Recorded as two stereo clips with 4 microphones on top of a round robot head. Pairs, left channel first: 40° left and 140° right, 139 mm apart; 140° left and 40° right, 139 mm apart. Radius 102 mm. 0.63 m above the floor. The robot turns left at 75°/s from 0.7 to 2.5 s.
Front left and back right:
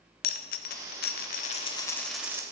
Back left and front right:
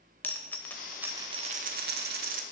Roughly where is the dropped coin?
Ahead left.